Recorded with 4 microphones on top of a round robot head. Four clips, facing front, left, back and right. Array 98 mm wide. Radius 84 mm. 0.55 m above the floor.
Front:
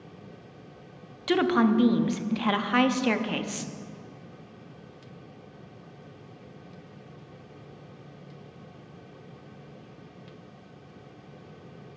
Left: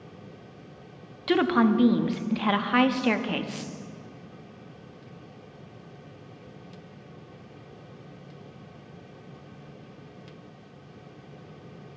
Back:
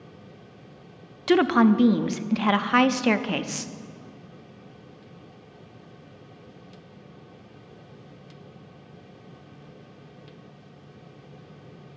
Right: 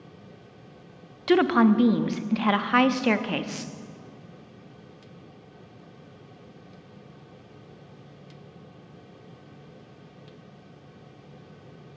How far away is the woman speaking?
About 0.6 m.